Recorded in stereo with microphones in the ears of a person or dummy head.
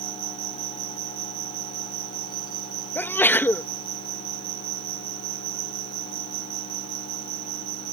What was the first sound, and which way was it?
An insect, 50° right (ahead or behind).